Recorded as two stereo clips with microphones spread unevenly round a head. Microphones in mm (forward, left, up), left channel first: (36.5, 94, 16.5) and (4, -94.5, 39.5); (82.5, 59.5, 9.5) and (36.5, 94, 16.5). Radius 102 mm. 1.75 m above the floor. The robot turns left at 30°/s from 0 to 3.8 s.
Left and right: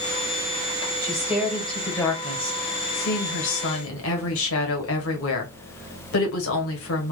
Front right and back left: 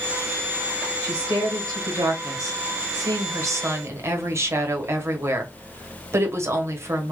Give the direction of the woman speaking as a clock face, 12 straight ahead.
6 o'clock.